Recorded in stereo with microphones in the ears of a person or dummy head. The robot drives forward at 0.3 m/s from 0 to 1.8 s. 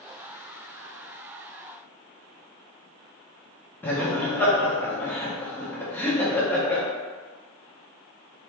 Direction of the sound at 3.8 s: 10° left (ahead or behind).